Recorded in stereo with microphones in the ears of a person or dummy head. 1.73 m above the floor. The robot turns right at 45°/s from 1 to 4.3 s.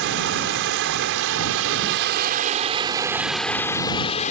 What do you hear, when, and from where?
0.0 s running water: 105° right; by 4.3 s 45° left